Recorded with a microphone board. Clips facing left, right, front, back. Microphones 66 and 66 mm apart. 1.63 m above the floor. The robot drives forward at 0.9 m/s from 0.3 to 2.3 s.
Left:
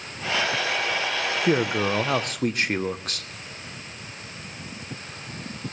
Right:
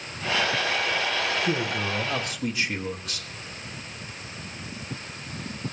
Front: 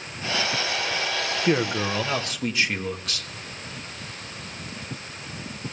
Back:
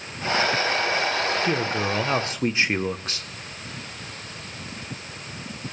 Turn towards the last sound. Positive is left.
turn(degrees=125)